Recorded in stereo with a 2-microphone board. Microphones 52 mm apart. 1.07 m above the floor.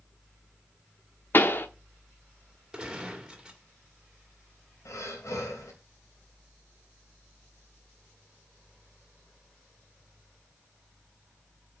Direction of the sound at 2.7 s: 15° right (ahead or behind).